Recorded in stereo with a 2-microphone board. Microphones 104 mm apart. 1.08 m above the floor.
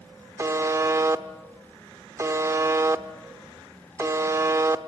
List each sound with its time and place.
0.4 s a buzzer: 30° right (ahead or behind), 0.9 m